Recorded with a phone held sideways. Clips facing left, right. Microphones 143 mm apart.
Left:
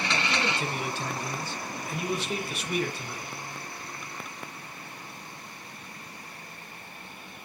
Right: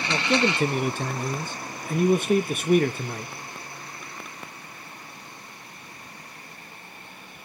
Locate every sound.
0.1 s a man speaking: 50° right (ahead or behind), 0.8 m